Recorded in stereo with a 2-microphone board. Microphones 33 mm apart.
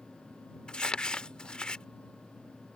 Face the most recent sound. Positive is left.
turn(degrees=30)  # may be behind; listen again after turning